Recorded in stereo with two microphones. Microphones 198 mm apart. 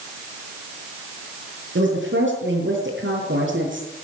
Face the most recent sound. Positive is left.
turn(degrees=-80)